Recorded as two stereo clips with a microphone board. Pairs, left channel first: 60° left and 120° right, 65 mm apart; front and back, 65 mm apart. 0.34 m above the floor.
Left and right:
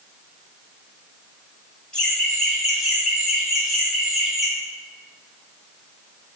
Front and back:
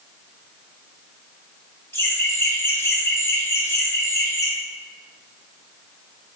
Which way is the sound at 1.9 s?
15° right.